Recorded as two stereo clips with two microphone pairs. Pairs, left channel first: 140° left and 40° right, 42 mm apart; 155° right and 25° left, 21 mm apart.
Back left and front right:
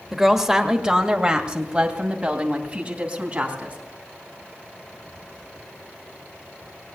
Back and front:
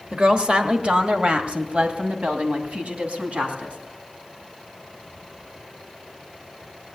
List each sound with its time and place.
0.1 s a woman speaking: 35° left, 1.3 m; by 3.8 s 15° left, 3.5 m